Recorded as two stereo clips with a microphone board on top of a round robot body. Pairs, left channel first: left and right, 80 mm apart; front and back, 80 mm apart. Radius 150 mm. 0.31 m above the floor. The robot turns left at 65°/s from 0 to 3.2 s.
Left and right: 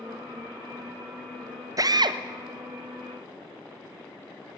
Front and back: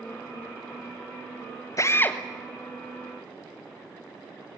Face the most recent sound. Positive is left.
turn(degrees=-140)